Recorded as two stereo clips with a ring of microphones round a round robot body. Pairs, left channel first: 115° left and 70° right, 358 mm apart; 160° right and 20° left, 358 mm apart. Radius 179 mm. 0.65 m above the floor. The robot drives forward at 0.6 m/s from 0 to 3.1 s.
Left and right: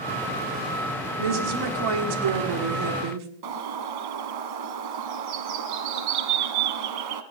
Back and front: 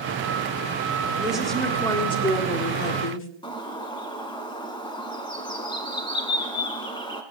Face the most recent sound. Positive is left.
turn(degrees=-80)